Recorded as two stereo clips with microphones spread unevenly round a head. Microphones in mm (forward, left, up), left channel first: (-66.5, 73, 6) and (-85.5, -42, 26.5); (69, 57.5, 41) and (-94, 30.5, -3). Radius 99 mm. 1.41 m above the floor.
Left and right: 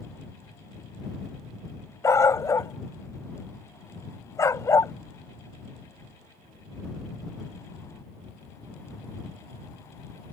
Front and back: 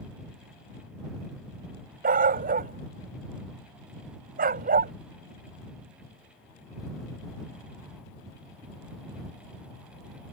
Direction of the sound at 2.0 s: 150° left.